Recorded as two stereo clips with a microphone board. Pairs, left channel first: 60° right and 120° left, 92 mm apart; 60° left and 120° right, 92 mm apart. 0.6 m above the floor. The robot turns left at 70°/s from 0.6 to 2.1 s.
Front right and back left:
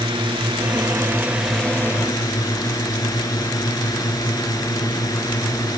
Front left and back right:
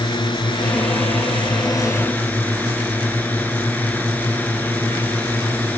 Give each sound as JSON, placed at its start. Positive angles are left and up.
{"t": 0.0, "sound": "a drone", "azimuth_deg": 95}